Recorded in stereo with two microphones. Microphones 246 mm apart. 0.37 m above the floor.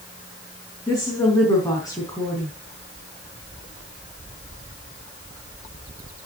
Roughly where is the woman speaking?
Centre.